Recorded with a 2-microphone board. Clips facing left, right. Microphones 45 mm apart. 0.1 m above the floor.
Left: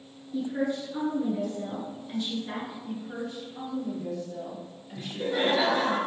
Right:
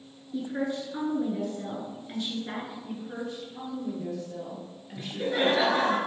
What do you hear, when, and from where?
0.3 s a woman speaking: 20° right (ahead or behind), 1.1 m
2.8 s a woman speaking: 15° right (ahead or behind), 1.8 m
5.0 s laughter: 20° right (ahead or behind), 1.2 m